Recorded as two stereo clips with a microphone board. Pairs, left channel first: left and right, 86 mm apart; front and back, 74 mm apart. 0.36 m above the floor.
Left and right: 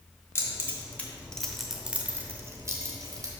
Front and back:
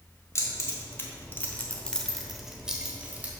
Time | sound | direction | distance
0.3 | keys jangling | 35° left | 1.4 m